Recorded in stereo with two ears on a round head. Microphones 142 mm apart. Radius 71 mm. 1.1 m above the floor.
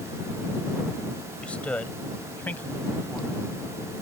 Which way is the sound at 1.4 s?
10° left (ahead or behind).